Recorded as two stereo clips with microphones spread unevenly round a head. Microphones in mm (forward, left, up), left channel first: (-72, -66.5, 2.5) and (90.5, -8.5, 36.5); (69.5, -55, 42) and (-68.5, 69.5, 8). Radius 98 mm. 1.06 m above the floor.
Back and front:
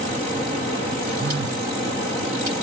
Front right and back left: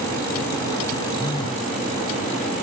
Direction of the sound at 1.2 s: 20° left.